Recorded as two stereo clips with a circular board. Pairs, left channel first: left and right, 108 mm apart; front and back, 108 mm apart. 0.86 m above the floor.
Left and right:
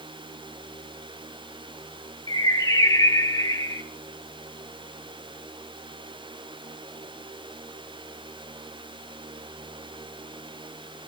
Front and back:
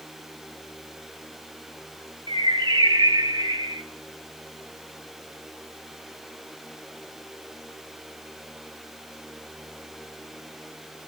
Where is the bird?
140° left, 0.9 m.